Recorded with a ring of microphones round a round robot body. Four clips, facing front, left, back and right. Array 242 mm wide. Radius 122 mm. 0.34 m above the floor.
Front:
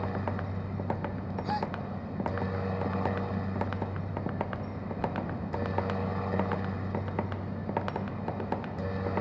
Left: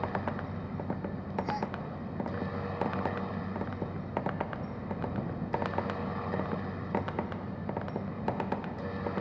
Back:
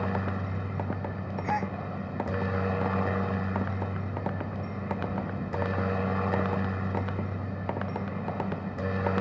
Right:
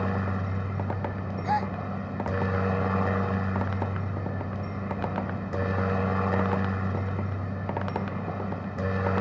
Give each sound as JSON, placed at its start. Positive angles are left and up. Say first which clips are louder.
{"t": 0.0, "sound": "a helicopter", "louder": "right 4 dB, back 2 dB", "azimuth_deg": -115}
{"t": 1.4, "sound": "a gasp", "louder": "right 10 dB, back 3 dB", "azimuth_deg": -105}